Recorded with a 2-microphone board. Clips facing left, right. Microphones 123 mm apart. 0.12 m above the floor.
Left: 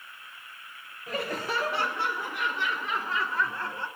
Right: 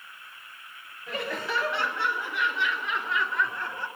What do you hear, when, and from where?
1.1 s laughter: 45° left (ahead or behind), 2.5 m; by 3.9 s 25° left (ahead or behind), 2 m